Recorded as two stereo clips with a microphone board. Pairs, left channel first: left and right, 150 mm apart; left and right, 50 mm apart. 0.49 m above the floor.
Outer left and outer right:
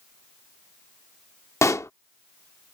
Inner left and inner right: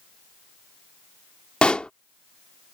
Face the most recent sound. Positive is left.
turn(degrees=20)  # may be behind; listen again after turning